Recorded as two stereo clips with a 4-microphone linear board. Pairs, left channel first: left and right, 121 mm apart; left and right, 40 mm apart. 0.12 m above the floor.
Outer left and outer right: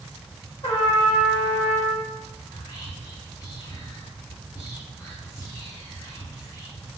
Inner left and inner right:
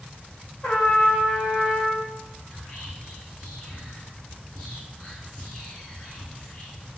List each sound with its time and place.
0.6 s a trumpet: 40° left (ahead or behind), 1.2 m
2.5 s whispering: 30° left (ahead or behind), 1.7 m